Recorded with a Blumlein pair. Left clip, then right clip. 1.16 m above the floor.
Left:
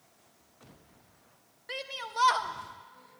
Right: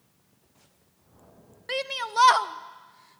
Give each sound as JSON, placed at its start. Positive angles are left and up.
{"t": 1.7, "sound": "a shout", "azimuth_deg": -25, "distance_m": 0.6}